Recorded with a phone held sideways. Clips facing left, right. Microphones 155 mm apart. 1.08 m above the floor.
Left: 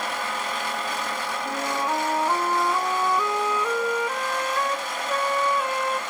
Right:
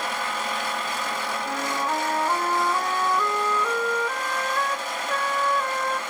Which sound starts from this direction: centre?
A flute, at 1.4 s.